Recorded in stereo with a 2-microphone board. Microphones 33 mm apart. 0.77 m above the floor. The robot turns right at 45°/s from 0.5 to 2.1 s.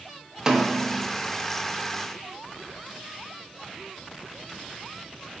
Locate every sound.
0.5 s a snare drum: 20° right (ahead or behind), 0.7 m; by 1.1 s 5° right (ahead or behind), 0.7 m